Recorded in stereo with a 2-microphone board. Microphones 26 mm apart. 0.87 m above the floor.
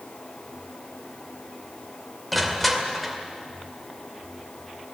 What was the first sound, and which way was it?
Crushing, centre (ahead or behind).